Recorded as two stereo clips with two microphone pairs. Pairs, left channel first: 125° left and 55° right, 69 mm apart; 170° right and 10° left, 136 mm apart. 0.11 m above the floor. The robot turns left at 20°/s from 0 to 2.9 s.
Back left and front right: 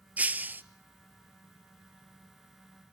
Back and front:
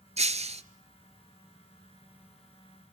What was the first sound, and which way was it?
Breaking glass, 10° left.